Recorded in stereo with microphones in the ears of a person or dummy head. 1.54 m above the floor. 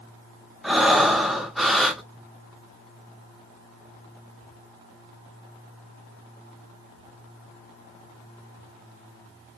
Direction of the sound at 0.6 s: 5° right (ahead or behind).